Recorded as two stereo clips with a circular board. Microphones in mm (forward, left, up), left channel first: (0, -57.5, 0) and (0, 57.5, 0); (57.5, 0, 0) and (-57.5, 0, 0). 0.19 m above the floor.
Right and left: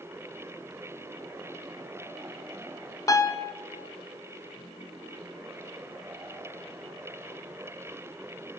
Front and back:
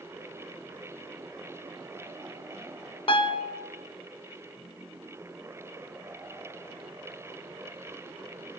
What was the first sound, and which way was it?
A piano, 35° right.